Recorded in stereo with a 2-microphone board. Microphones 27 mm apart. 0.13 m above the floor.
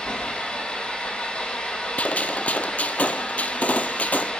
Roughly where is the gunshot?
Left.